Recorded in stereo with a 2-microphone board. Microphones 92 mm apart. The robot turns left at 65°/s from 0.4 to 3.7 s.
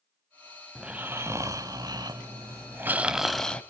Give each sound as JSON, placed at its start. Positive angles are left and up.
{"t": 0.8, "sound": "snoring", "azimuth_deg": -10, "distance_m": 0.9}